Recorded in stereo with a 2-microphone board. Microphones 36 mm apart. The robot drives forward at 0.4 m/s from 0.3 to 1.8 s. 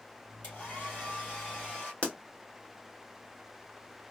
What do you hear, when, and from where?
0.4 s a hair dryer: 50° left (ahead or behind), 3 m; by 1.9 s 45° left (ahead or behind), 3 m
2.0 s a pop: 40° left (ahead or behind), 1.2 m